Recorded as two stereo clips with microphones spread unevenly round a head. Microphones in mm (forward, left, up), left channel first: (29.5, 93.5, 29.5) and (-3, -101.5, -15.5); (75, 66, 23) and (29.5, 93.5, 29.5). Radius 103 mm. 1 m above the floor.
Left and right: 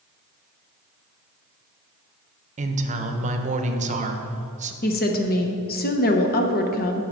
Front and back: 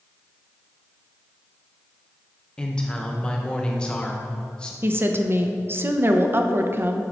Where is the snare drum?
I don't hear a snare drum.